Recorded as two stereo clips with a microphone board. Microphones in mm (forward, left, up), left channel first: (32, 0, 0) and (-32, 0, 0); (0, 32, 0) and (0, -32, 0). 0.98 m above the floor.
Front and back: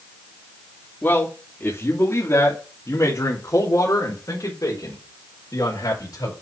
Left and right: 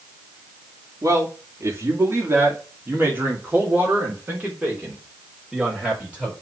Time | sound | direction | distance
1.0 | a man speaking | 55° right | 2.5 m